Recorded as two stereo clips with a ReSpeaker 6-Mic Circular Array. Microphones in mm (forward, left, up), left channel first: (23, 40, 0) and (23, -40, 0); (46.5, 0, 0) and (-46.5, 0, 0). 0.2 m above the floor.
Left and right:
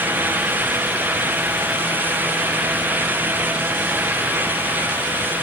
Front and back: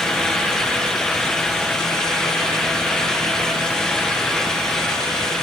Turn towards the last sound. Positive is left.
No sound to turn to.